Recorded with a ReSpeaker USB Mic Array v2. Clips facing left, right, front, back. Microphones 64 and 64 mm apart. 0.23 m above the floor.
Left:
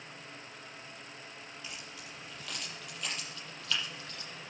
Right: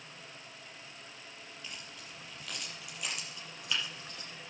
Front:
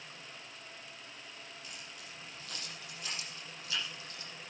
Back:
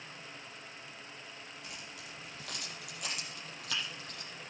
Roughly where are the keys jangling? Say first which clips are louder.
Even, back 2 dB; behind.